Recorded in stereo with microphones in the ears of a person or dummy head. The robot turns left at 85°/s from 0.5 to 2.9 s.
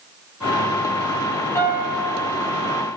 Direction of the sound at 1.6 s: 20° left.